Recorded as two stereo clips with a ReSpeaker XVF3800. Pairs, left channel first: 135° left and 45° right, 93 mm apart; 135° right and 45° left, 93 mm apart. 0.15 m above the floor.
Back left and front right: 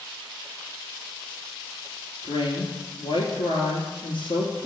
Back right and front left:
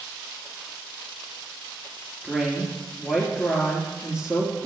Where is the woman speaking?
125° left, 2.5 m.